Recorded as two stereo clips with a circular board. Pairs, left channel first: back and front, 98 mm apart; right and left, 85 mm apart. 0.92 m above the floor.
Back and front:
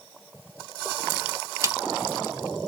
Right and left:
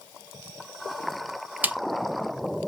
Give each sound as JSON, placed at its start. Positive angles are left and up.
{"t": 1.6, "sound": "a snare drum", "azimuth_deg": 30, "distance_m": 0.9}